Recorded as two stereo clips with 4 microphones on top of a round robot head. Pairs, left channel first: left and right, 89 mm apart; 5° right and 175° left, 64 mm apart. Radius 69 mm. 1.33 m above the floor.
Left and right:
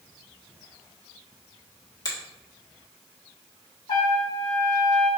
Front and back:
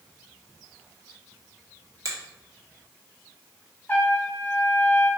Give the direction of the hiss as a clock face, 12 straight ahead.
No hiss in this recording.